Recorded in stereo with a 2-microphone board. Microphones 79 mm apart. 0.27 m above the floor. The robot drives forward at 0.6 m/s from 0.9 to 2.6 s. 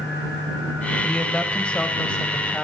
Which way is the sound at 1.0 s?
15° left (ahead or behind).